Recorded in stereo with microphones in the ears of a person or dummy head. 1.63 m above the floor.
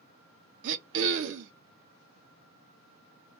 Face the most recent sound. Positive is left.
turn(degrees=-65)  # may be behind; listen again after turning